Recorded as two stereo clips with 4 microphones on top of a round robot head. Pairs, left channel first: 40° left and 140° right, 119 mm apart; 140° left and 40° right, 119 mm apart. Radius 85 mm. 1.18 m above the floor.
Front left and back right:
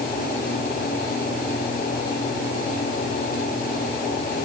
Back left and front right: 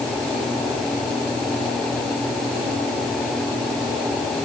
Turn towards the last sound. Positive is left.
No sound to turn to.